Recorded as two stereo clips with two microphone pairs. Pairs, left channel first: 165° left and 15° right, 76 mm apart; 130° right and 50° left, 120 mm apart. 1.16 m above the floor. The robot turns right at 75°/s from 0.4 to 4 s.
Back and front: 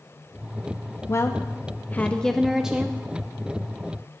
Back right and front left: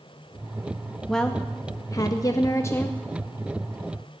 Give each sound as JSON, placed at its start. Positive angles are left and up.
{"t": 1.1, "sound": "a woman speaking", "azimuth_deg": 150, "distance_m": 0.6}